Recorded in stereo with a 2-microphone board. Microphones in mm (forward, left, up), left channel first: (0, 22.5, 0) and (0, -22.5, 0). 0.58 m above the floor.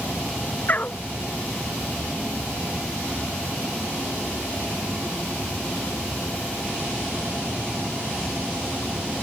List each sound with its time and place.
0.7 s a dog barking: 40° left (ahead or behind)